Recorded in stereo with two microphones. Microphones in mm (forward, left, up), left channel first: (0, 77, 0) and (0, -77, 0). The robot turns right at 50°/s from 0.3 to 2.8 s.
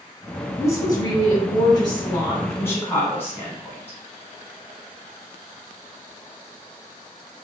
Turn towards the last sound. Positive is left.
turn(degrees=15)  # may be behind; listen again after turning